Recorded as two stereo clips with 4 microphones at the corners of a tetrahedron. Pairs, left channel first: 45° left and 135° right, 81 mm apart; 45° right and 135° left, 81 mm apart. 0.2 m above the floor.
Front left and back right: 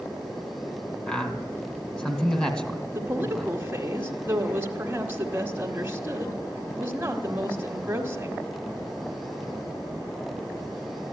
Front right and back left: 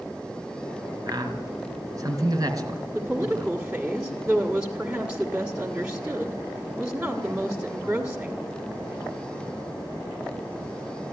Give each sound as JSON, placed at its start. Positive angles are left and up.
{"t": 1.1, "sound": "a man speaking", "azimuth_deg": 120, "distance_m": 2.0}
{"t": 2.9, "sound": "a woman speaking", "azimuth_deg": -165, "distance_m": 1.4}